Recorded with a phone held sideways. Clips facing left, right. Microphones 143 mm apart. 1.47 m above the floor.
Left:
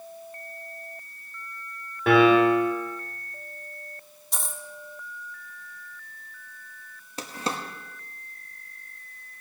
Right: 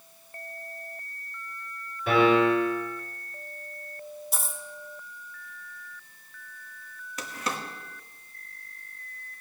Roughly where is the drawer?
Left.